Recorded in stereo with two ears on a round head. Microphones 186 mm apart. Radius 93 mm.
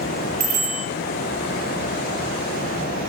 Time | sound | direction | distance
0.4 | a bicycle bell | 40° right (ahead or behind) | 9 m